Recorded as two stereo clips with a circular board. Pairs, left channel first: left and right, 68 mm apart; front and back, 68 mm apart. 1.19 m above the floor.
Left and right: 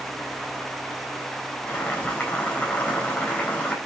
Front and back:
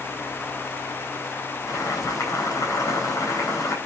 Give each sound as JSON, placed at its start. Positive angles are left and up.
{"t": 1.7, "sound": "boiling", "azimuth_deg": 30, "distance_m": 4.0}